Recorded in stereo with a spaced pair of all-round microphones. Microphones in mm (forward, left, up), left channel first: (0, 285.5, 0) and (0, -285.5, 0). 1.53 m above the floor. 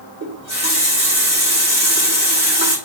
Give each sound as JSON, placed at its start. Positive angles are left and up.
{"t": 0.2, "sound": "a running tap", "side_deg": -10, "distance_m": 2.0}